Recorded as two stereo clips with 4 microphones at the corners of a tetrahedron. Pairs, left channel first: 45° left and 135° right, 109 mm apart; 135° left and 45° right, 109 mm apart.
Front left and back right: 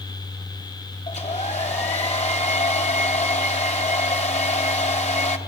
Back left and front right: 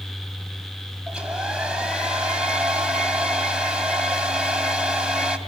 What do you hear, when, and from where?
1.1 s a hair dryer: 35° left, 2.5 m